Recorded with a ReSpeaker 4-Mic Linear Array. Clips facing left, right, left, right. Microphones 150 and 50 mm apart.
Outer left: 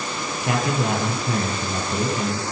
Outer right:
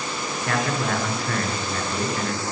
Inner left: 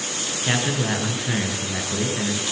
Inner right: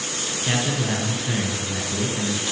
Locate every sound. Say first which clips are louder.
0.4 s a man speaking: outer left 2 dB, inner left 1 dB; 20° left (ahead or behind), 4.5 m